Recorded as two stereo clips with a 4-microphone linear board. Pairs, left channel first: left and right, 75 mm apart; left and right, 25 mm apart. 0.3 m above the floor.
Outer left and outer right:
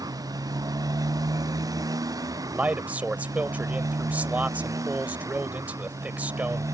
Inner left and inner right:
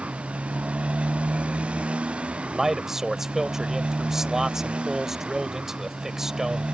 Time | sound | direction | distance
0.0 | a motorcycle | 60° right (ahead or behind) | ?
2.5 | a man speaking | 20° right (ahead or behind) | ?